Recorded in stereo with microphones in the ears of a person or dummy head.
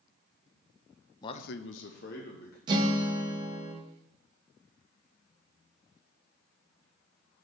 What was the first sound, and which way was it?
A man speaking, 20° left (ahead or behind).